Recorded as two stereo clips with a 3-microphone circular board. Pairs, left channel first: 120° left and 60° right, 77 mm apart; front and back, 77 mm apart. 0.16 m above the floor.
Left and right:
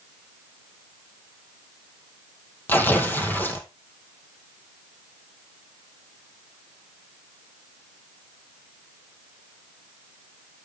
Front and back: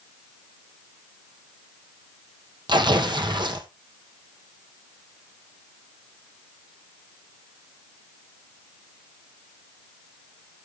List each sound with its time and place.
2.7 s tearing paper: 175° right, 2.0 m